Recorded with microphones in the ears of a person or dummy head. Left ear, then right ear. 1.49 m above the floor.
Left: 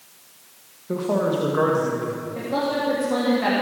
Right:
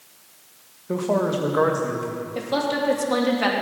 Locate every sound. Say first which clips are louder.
0.9 s a man speaking: even; 20° right (ahead or behind), 1.5 m; by 2.2 s 15° right (ahead or behind), 2.5 m
2.4 s a woman speaking: right 1 dB; 75° right (ahead or behind), 3 m